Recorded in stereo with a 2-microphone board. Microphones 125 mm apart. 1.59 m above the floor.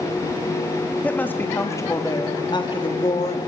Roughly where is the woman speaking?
Centre.